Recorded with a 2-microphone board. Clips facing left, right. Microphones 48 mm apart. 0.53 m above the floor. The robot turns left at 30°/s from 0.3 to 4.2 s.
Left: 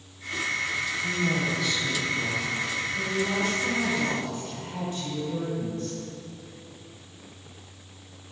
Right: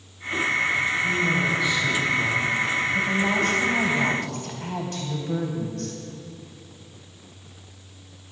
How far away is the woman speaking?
About 3.5 m.